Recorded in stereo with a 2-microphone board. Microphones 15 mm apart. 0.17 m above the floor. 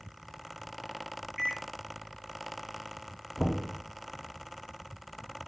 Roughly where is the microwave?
Centre.